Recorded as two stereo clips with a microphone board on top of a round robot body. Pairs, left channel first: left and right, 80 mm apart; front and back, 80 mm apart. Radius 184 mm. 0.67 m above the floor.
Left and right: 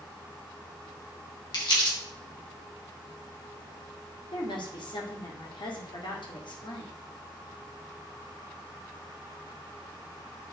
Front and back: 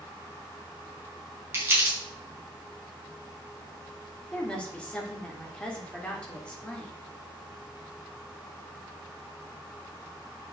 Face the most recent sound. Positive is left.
turn(degrees=75)